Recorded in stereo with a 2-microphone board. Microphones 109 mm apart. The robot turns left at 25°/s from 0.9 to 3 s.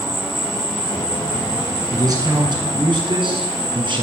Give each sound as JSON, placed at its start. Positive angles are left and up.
{"t": 0.0, "sound": "an insect", "azimuth_deg": 175, "distance_m": 5.0}
{"t": 1.9, "sound": "a man speaking", "side_deg": -35, "distance_m": 1.7}